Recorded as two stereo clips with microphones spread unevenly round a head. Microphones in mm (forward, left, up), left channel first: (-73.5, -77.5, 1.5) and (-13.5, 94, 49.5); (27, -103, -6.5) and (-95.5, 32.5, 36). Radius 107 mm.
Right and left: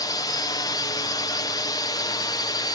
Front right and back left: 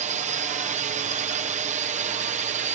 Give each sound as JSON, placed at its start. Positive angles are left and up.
{"t": 0.0, "sound": "a drone", "azimuth_deg": -175}